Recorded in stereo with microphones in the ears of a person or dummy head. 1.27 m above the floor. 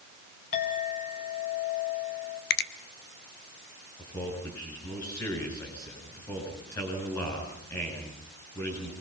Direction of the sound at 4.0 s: 20° left (ahead or behind).